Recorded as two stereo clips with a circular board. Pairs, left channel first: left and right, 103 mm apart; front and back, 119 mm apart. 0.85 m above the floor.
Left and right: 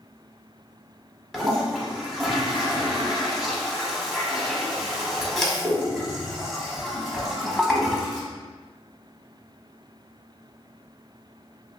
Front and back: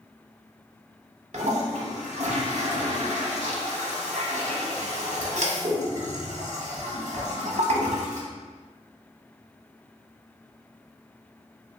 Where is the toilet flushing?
Straight behind, 0.9 m.